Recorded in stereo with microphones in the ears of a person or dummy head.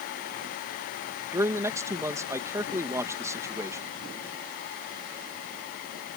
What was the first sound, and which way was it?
A man speaking, 10° right (ahead or behind).